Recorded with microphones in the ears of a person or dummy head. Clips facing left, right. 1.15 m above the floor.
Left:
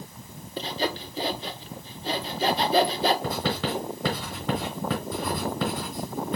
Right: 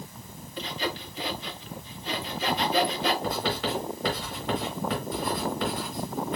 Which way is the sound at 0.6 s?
25° left (ahead or behind).